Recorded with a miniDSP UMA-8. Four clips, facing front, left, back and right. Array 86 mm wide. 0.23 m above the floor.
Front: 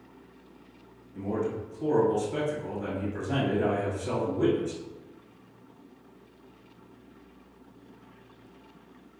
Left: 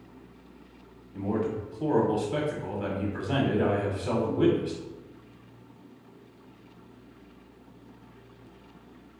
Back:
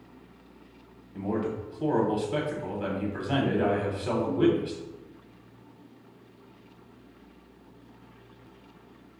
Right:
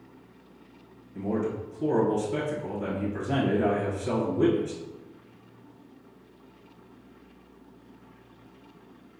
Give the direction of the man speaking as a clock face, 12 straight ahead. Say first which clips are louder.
Even, even; 7 o'clock.